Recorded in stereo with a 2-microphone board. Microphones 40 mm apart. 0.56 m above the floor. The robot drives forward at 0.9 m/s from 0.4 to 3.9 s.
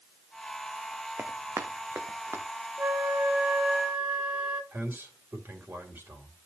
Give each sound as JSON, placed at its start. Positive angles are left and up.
{"t": 1.2, "sound": "running footsteps", "side_deg": -70, "distance_m": 1.4}
{"t": 2.8, "sound": "a flute", "side_deg": -50, "distance_m": 0.6}
{"t": 4.7, "sound": "a man speaking", "side_deg": -65, "distance_m": 2.5}